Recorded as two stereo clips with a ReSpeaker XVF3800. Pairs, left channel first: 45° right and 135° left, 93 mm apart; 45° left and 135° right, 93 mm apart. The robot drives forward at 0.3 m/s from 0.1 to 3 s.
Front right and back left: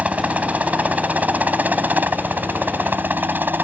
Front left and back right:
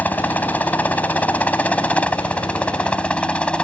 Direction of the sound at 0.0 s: 85° left.